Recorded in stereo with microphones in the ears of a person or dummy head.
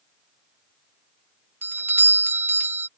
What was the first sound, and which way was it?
A doorbell, 10° right (ahead or behind).